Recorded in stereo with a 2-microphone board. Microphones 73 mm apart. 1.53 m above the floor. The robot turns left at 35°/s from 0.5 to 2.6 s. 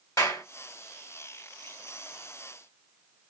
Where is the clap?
50° left (ahead or behind), 1.5 m.